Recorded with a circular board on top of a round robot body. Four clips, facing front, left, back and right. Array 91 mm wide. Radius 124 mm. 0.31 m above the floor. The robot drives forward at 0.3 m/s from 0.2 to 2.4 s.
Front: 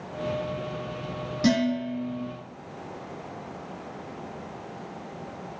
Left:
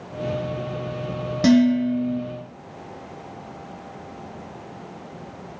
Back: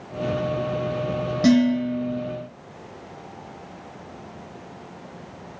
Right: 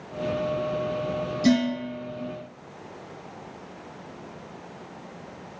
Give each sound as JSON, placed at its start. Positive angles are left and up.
{"t": 1.4, "sound": "dishes clattering", "azimuth_deg": 105, "distance_m": 1.6}